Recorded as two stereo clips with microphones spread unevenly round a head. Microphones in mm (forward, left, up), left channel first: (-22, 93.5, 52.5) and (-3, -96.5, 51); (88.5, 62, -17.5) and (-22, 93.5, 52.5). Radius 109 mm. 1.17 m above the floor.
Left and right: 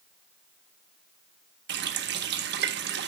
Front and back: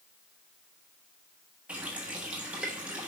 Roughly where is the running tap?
Behind right.